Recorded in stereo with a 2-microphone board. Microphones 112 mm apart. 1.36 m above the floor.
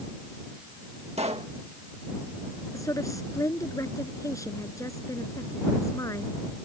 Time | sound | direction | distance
1.2 | a pop | 70° right (ahead or behind) | ?
2.7 | a woman speaking | 30° left (ahead or behind) | ?